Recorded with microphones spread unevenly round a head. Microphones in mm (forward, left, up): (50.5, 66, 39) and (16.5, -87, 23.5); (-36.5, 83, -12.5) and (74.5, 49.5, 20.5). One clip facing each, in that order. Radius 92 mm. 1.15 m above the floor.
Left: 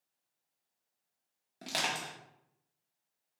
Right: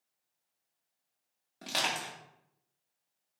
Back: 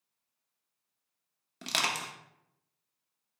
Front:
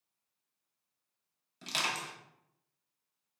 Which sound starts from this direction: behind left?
Crushing, at 1.6 s.